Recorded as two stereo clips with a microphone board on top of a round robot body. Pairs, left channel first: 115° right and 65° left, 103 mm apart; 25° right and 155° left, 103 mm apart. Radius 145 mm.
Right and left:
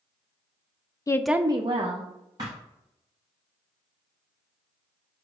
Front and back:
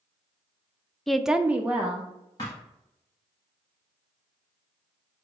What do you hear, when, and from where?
1.1 s a woman speaking: 105° right, 0.5 m; by 2.1 s 85° left, 1.1 m
2.4 s a thud: 20° left, 0.5 m